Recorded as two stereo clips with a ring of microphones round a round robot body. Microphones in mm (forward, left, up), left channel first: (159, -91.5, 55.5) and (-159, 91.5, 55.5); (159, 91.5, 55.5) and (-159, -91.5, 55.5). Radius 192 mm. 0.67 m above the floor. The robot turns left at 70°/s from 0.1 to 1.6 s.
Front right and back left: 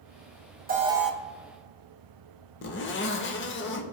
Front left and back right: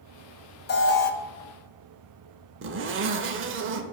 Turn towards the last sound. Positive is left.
turn(degrees=-90)